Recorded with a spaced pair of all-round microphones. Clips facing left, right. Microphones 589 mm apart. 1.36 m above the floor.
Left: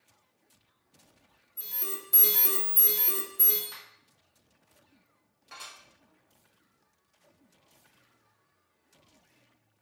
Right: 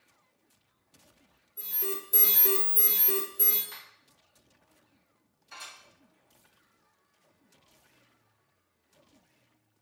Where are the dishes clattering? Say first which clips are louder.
Left 1 dB; 70° left (ahead or behind), 1.5 m.